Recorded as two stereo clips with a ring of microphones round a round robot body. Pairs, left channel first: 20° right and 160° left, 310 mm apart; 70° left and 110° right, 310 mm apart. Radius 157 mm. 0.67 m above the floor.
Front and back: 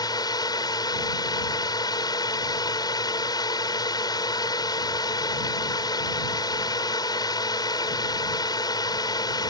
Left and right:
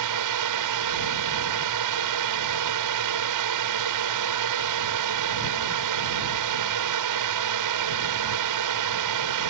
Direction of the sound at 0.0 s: 100° right.